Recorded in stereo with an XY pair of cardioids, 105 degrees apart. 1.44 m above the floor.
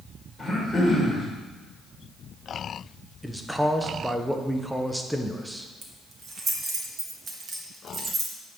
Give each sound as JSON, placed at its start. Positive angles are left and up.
{"t": 0.4, "sound": "throat clearing", "azimuth_deg": 20, "distance_m": 2.5}
{"t": 3.2, "sound": "a man speaking", "azimuth_deg": 0, "distance_m": 0.7}
{"t": 5.8, "sound": "keys jangling", "azimuth_deg": -35, "distance_m": 1.5}